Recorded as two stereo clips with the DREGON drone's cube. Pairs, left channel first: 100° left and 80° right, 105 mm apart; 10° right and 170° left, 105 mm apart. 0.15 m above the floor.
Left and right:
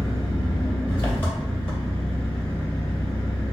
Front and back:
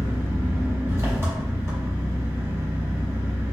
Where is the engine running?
135° left, 1.3 m.